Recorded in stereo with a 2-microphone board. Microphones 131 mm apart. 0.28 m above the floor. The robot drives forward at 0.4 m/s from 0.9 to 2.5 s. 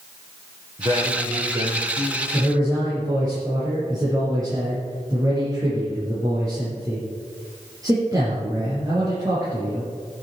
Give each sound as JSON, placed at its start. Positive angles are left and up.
{"t": 0.8, "sound": "a man speaking", "side_deg": -35, "distance_m": 6.0}
{"t": 2.3, "sound": "a man speaking", "side_deg": -25, "distance_m": 6.0}